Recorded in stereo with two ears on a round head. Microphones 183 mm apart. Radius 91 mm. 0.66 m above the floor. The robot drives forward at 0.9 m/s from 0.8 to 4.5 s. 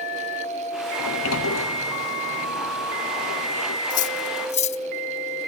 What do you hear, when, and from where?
1.0 s a sliding door: 75° left (ahead or behind); by 3.8 s 80° left
3.9 s cutlery clinking: 45° left (ahead or behind); by 4.8 s 35° left (ahead or behind)